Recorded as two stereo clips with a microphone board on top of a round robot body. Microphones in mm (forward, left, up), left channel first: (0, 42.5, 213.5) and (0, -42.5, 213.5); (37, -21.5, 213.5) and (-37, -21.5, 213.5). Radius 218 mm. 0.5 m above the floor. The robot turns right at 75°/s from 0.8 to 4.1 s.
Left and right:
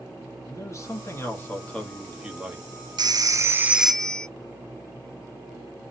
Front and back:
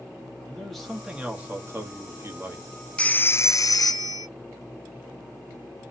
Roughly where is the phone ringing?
Right.